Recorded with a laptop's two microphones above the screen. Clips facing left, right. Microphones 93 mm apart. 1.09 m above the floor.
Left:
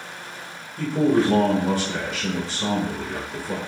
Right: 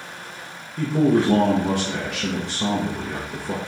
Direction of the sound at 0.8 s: 70° right (ahead or behind).